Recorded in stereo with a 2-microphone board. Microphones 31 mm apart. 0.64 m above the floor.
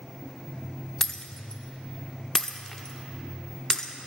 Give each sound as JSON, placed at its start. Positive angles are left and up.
{"t": 1.0, "sound": "breaking glass", "side_deg": 20, "distance_m": 0.5}